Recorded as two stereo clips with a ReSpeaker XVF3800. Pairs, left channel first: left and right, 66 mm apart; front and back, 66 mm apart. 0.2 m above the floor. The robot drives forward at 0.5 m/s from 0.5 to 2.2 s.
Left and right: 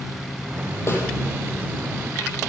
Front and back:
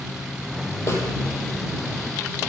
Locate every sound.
0.9 s a snare drum: 40° left, 7 m; by 1.0 s 45° left, 7 m